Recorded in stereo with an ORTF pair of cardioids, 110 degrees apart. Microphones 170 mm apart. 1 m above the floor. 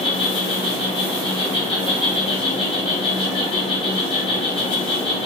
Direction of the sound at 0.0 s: 30° left.